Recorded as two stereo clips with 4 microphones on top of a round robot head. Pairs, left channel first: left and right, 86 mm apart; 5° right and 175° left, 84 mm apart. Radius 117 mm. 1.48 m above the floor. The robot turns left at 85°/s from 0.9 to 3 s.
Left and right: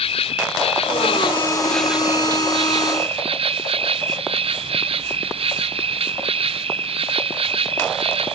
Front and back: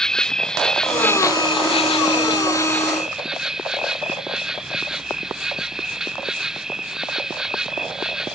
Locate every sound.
0.0 s an insect: 80° left; by 8.4 s 100° right